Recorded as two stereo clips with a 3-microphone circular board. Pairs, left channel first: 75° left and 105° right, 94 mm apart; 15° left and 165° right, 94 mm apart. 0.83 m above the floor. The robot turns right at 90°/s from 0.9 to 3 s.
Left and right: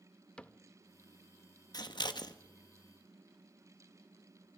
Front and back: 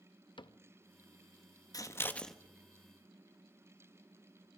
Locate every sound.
0.4 s a cupboard door: 5° right, 0.5 m
1.7 s scissors: 50° left, 1.2 m; by 2.3 s 105° left, 1.2 m